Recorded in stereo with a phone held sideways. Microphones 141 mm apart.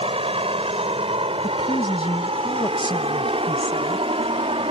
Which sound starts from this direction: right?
A vehicle, at 0.0 s.